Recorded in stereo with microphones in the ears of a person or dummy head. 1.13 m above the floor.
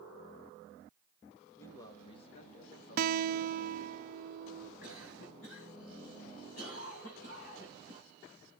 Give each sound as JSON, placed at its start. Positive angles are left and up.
{"t": 1.6, "sound": "a man speaking", "side_deg": 10, "distance_m": 1.8}
{"t": 3.0, "sound": "a guitar", "side_deg": -60, "distance_m": 0.6}
{"t": 4.8, "sound": "a cough", "side_deg": 80, "distance_m": 6.0}